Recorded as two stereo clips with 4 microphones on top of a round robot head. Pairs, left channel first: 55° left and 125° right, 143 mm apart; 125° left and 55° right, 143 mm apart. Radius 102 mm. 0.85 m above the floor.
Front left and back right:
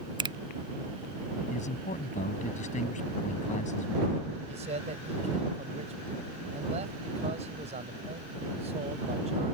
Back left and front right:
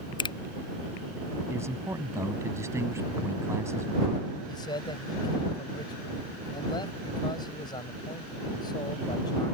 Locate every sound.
0.2 s a finger snap: straight behind
1.5 s a man speaking: 20° left
4.5 s a man speaking: 170° right